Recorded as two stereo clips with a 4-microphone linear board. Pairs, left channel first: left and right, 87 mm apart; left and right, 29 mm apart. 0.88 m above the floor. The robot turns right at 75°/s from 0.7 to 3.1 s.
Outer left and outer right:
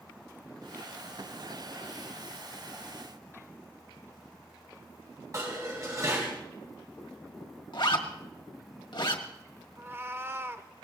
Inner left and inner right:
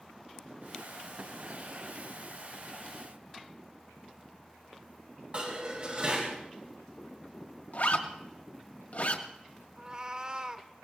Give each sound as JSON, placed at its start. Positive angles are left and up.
{"t": 5.3, "sound": "dishes clattering", "side_deg": -40, "distance_m": 4.0}
{"t": 7.7, "sound": "a zipper", "side_deg": 65, "distance_m": 1.7}
{"t": 9.8, "sound": "a cat meowing", "side_deg": -25, "distance_m": 0.7}